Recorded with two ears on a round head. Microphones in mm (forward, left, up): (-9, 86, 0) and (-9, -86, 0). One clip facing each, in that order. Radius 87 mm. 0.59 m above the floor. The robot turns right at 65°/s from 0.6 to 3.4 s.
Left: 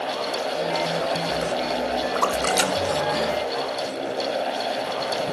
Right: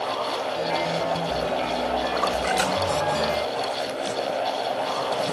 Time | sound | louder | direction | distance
2.1 | a splash | left 1 dB | 65° left (ahead or behind) | 1.4 m